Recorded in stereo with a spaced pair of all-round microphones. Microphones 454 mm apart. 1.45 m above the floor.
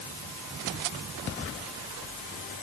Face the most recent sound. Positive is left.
No sound to turn to.